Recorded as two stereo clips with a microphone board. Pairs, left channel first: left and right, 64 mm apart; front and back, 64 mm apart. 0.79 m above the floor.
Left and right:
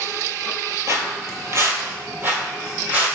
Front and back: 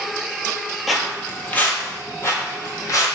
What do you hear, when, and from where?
0.9 s footsteps: 90° right, 1.0 m; by 3.1 s 25° right, 1.9 m